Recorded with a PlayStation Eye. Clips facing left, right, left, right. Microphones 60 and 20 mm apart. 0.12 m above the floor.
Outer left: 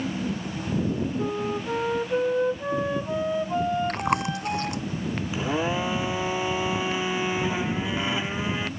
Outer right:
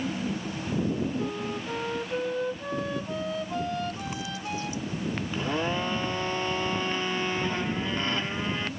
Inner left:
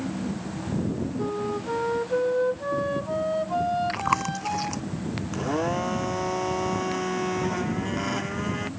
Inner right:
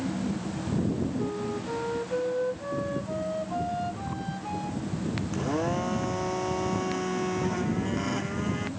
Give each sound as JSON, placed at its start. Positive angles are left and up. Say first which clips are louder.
{"t": 1.2, "sound": "a flute", "louder": "outer left 4 dB, inner left 3 dB", "side_deg": 20}
{"t": 3.9, "sound": "chewing", "louder": "outer left 9 dB, inner left 9 dB", "side_deg": 65}
{"t": 5.3, "sound": "a blender", "louder": "outer left 3 dB, inner left 3 dB", "side_deg": 10}